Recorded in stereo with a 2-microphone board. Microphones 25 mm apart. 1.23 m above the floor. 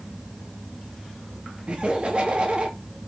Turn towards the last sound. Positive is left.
turn(degrees=-40)  # may be behind; listen again after turning